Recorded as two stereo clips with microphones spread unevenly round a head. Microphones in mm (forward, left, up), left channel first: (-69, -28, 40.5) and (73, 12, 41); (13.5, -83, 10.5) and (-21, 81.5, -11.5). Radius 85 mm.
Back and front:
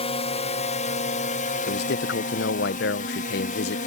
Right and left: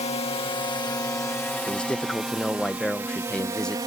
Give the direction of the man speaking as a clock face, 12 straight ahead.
5 o'clock.